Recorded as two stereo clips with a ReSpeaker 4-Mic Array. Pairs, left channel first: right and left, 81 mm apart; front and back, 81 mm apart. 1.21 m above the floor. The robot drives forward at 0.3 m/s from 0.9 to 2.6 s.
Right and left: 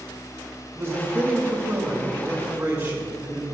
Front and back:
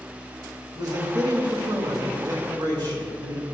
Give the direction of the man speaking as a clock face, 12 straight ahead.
7 o'clock.